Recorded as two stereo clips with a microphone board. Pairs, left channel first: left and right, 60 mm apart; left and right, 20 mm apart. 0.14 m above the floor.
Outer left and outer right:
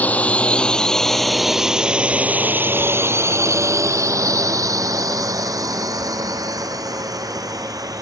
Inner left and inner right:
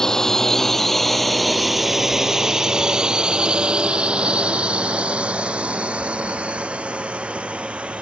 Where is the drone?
25° left (ahead or behind); by 8.0 s 80° right.